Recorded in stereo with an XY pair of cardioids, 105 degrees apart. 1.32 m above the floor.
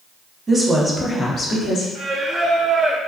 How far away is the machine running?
I don't hear a machine running.